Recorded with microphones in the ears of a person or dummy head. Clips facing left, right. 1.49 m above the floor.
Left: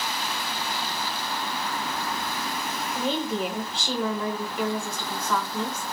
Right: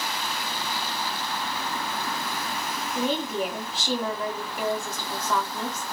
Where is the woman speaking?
Centre (ahead or behind), 1.1 m.